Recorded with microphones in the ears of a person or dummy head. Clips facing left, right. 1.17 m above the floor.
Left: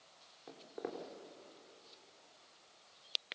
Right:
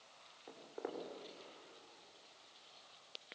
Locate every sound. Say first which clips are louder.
0.5 s footsteps: left 2 dB; 30° left (ahead or behind), 3.5 m